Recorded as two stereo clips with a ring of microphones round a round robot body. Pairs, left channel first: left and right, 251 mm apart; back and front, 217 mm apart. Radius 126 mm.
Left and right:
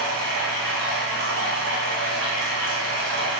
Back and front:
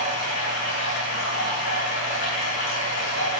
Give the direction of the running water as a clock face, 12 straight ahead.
5 o'clock.